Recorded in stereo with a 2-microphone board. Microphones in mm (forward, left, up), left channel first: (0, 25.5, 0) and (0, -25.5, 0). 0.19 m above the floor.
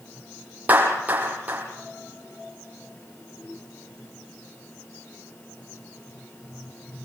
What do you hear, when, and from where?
0.7 s a clap: 30° right (ahead or behind), 5 m